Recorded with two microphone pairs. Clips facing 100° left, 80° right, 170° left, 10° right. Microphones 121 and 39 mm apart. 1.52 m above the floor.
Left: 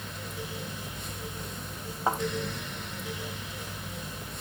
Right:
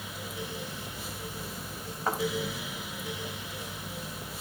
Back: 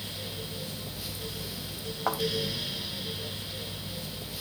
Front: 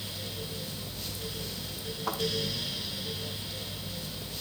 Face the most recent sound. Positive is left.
turn(degrees=170)